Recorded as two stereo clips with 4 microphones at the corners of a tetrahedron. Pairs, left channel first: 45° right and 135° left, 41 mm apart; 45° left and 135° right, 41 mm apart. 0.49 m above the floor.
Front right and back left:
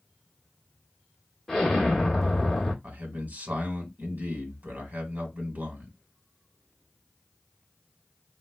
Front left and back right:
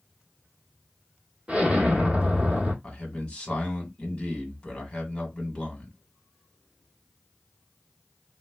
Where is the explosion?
110° right, 1.3 m.